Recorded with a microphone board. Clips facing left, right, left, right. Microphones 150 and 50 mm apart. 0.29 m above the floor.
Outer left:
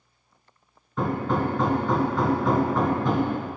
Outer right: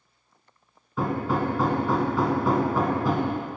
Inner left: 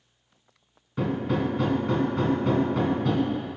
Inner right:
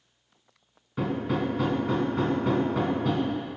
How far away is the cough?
I don't hear a cough.